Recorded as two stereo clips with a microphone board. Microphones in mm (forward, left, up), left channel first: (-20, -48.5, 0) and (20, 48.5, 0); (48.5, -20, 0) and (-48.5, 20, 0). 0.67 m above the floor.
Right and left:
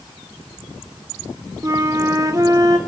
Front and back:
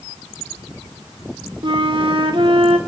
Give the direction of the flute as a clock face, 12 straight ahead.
8 o'clock.